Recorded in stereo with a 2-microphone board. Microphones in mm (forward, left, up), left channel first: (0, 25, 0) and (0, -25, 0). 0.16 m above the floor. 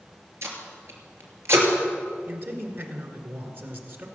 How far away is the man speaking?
About 2 m.